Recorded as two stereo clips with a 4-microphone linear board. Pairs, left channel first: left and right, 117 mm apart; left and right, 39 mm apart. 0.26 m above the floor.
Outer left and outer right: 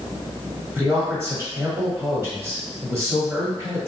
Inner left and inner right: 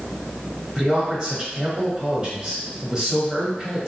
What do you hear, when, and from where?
0.8 s a man speaking: 20° right (ahead or behind), 1.2 m